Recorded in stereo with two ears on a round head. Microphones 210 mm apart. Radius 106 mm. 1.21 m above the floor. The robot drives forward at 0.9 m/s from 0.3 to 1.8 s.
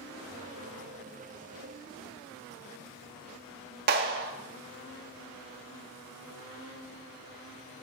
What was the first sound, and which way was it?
A clap, 40° right (ahead or behind).